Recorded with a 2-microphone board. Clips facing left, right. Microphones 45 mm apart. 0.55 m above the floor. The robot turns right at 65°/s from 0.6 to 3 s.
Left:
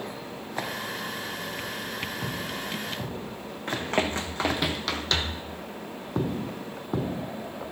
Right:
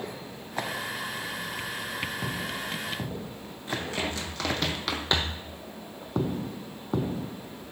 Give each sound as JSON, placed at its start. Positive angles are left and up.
{"t": 3.7, "sound": "running footsteps", "side_deg": 50, "distance_m": 2.0}